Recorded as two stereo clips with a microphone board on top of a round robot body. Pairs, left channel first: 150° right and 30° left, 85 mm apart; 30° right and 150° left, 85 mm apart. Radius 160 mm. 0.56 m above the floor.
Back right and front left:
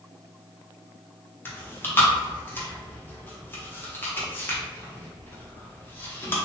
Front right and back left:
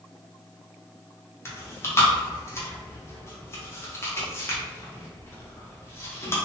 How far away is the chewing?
About 1.0 m.